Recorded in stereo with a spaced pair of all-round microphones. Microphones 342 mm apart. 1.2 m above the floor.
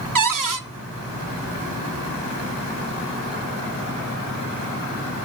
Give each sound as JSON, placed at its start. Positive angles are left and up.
{"t": 0.1, "sound": "a cupboard door", "side_deg": -65, "distance_m": 0.6}